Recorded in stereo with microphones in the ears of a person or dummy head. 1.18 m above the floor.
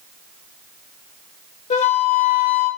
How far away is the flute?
About 0.6 m.